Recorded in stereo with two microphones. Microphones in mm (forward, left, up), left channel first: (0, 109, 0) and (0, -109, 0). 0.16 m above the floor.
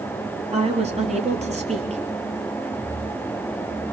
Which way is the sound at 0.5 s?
30° right (ahead or behind).